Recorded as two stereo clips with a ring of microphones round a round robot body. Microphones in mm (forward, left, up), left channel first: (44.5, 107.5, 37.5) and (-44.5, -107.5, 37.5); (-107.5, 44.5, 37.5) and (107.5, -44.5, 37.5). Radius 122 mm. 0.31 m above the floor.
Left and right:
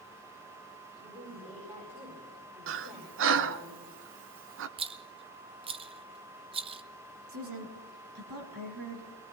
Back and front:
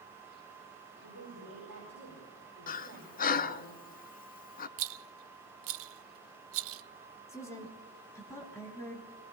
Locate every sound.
1.0 s a woman speaking: 45° right, 9 m
2.7 s breathing: 150° right, 0.6 m
4.8 s a rattle: 45° right, 0.5 m
7.3 s a woman speaking: 125° right, 3.5 m